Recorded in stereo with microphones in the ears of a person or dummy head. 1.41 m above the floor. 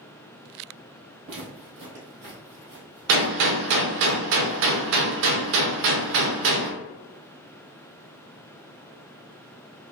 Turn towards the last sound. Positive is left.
turn(degrees=-60)  # may be behind; listen again after turning